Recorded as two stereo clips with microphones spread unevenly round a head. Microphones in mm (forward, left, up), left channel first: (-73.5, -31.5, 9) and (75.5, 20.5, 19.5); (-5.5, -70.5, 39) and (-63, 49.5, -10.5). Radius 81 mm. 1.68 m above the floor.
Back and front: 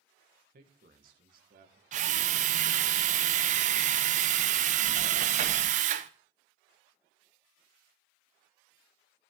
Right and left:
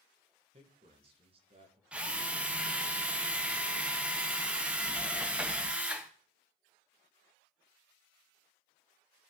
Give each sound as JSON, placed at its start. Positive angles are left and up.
{"t": 0.5, "sound": "a man speaking", "azimuth_deg": 60, "distance_m": 1.8}
{"t": 1.9, "sound": "a drill", "azimuth_deg": 15, "distance_m": 0.7}